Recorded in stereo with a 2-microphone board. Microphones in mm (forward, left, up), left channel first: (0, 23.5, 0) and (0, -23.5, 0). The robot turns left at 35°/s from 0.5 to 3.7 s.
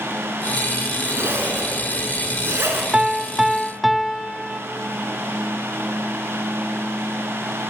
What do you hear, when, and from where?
1.1 s a zipper: 55° right, 3 m; by 2.8 s 115° right, 3 m
2.9 s a piano: 25° right (ahead or behind), 0.7 m; by 4.6 s centre (ahead or behind), 0.7 m